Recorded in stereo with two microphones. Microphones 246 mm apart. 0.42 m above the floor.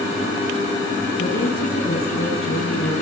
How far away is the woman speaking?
About 4 m.